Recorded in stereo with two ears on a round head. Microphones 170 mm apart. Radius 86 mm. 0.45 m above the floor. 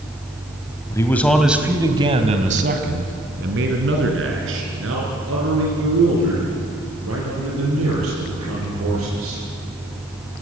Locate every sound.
0.9 s a man speaking: 15° left (ahead or behind), 2 m; by 9.4 s 85° right, 11.5 m